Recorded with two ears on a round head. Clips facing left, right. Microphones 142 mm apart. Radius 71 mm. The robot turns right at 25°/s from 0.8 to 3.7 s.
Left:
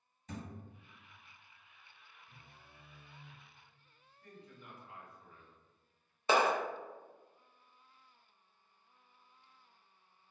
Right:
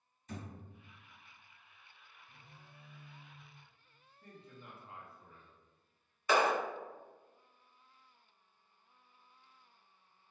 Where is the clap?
25° left (ahead or behind), 0.6 m.